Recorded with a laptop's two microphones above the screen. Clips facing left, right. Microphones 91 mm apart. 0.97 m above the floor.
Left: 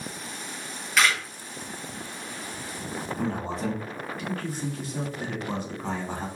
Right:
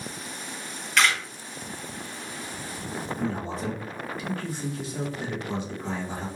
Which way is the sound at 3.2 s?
60° left (ahead or behind).